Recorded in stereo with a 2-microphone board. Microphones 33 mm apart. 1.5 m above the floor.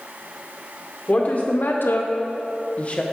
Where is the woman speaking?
45° left (ahead or behind), 1.0 m; by 3.0 s 35° left (ahead or behind), 1.0 m.